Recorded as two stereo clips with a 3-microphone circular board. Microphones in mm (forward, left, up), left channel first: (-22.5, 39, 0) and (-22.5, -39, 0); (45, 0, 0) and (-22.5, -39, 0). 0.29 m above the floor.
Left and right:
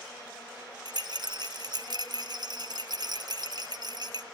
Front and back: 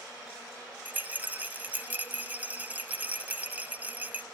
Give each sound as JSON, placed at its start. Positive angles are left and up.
{"t": 0.8, "sound": "a rattle", "azimuth_deg": -80, "distance_m": 0.5}